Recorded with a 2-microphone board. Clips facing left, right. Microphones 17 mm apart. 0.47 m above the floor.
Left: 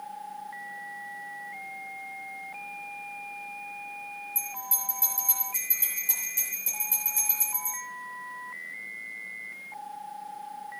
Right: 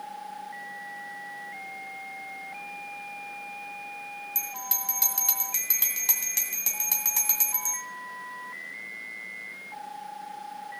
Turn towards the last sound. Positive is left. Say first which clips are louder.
# right 2 dB
turn(degrees=-55)  # may be behind; listen again after turning